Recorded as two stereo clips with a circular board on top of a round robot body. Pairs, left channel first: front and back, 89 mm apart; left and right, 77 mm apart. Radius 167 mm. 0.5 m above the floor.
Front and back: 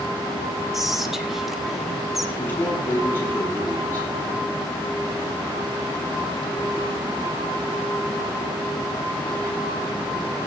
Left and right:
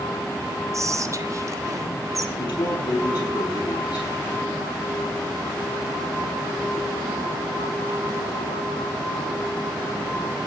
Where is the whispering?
95° right, 1.6 m.